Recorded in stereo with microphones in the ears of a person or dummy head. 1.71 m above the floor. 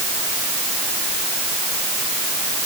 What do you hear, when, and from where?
Only background noise.